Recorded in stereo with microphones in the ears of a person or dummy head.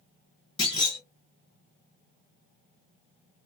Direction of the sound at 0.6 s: 30° left (ahead or behind).